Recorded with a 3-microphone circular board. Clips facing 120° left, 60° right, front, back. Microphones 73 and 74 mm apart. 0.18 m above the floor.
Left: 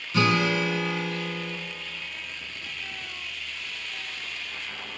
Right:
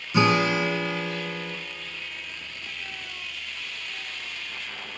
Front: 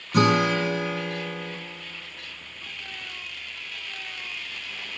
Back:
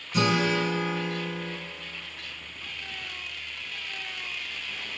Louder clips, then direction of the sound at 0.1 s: Right 2 dB, front 4 dB; 5° left.